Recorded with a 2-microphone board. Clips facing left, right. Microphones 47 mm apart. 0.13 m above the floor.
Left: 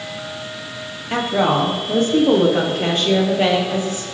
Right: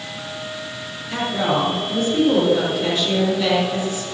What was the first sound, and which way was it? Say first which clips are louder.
A woman speaking: left 3 dB; 50° left (ahead or behind).